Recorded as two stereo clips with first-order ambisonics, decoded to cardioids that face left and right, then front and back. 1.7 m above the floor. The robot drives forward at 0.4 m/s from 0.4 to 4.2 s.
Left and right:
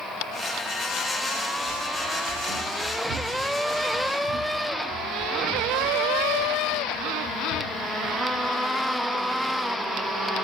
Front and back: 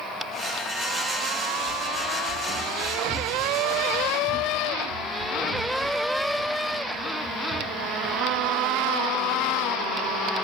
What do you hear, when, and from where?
1.7 s running footsteps: 95° right, 6.5 m; by 8.6 s 110° left, 5 m